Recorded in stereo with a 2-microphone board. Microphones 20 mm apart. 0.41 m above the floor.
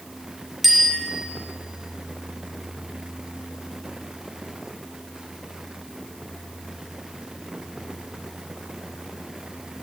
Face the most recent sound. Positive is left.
turn(degrees=0)  # may be behind; listen again after turning